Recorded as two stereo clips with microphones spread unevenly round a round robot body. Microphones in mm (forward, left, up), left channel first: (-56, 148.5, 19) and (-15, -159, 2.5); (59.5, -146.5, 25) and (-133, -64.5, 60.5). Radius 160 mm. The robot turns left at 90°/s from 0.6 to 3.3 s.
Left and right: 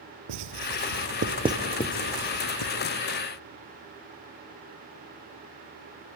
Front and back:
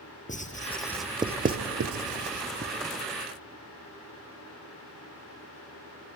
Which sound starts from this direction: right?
Writing, at 0.3 s.